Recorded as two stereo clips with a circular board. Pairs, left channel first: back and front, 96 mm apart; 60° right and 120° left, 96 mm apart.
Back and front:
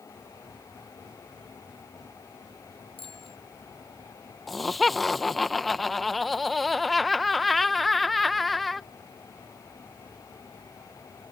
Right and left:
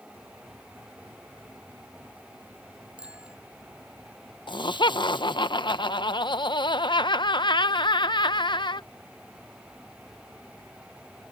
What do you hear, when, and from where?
3.0 s a bicycle bell: 160° right
4.5 s laughter: 90° right